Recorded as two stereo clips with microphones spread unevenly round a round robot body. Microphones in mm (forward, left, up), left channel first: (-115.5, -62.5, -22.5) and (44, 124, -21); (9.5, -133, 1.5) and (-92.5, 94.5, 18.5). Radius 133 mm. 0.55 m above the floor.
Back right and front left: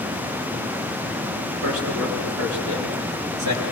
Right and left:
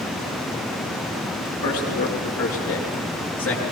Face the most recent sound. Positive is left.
turn(degrees=20)